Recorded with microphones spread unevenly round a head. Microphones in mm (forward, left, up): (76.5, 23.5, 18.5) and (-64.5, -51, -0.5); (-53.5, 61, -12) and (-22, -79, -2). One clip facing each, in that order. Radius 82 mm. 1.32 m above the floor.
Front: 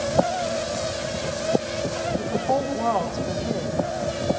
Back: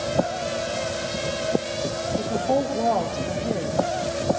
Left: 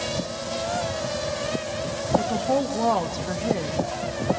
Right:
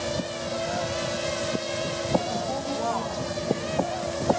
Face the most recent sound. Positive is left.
turn(degrees=135)